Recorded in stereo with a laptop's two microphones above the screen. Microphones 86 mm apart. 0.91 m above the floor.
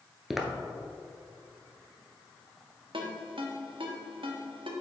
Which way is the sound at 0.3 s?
5° right (ahead or behind).